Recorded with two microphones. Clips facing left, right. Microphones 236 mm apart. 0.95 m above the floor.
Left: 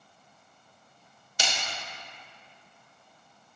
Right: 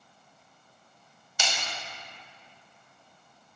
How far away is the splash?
About 2.5 m.